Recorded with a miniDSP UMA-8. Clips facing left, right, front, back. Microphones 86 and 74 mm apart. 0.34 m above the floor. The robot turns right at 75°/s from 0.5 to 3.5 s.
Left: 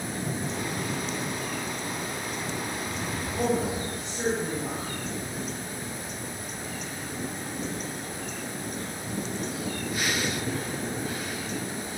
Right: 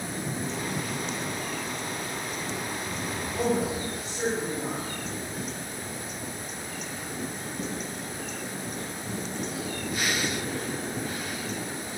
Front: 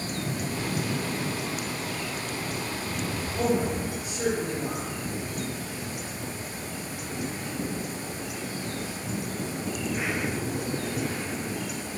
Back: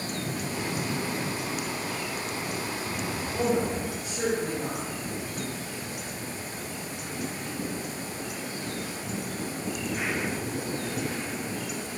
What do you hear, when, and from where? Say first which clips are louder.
3.3 s a woman speaking: even, front 1 dB; straight behind, 1.0 m; by 4.9 s 170° right, 1.0 m